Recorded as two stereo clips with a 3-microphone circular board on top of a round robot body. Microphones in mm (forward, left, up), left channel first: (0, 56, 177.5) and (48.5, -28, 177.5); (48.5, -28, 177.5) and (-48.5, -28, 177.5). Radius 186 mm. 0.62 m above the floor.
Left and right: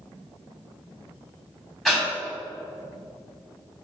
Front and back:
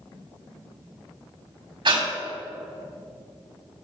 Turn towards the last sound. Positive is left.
turn(degrees=-150)